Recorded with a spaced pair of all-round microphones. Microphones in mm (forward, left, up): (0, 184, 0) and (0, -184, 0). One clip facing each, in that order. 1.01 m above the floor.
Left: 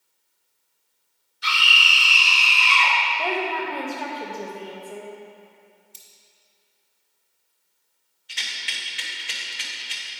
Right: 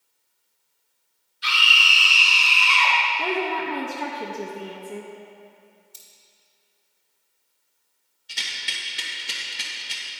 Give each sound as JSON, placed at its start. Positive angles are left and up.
{"t": 1.4, "sound": "a scream", "side_deg": 60, "distance_m": 2.5}
{"t": 3.2, "sound": "a woman speaking", "side_deg": -30, "distance_m": 0.8}
{"t": 5.9, "sound": "cutlery clinking", "side_deg": -55, "distance_m": 1.8}
{"t": 8.3, "sound": "a rattle", "side_deg": -55, "distance_m": 1.0}